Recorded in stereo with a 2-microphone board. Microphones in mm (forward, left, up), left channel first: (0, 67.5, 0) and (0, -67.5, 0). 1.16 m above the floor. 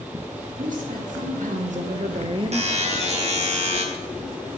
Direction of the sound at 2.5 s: 55° right (ahead or behind).